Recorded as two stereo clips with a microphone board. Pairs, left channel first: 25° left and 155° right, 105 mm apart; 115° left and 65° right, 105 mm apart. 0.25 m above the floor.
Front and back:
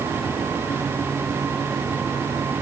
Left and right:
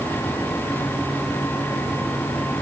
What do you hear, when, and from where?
Only background noise.